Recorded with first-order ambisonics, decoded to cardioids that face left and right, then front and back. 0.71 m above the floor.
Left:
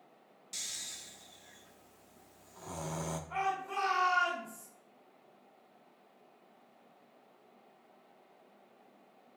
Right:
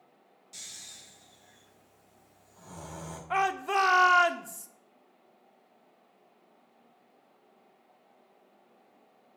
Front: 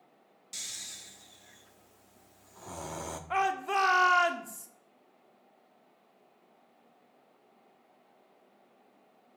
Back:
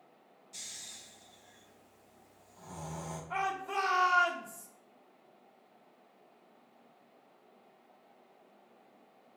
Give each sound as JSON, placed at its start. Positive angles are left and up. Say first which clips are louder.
{"t": 0.5, "sound": "snoring", "louder": "left 3 dB, front 5 dB", "azimuth_deg": 30, "distance_m": 1.3}
{"t": 3.3, "sound": "a shout", "louder": "right 8 dB, front 5 dB", "azimuth_deg": -60, "distance_m": 1.3}